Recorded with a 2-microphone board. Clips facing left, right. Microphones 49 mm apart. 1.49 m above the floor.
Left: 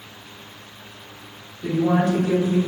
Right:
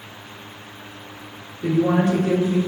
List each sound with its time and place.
1.6 s a woman speaking: 40° right (ahead or behind), 1.3 m